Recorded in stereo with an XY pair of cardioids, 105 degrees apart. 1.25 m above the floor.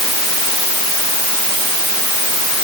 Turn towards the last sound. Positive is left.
No sound to turn to.